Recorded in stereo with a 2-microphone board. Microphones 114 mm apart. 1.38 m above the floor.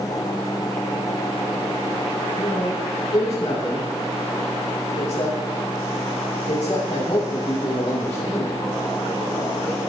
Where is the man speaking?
70° left (ahead or behind), 4.5 m.